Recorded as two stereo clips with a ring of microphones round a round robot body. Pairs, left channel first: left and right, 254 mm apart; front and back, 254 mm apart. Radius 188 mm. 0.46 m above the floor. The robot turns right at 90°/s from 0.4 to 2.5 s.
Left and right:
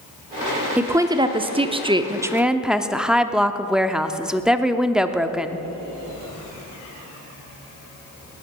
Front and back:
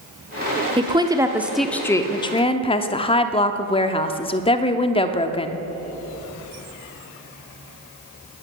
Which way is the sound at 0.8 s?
165° right.